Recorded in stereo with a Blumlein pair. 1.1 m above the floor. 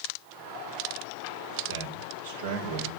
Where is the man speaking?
65° right, 4 m.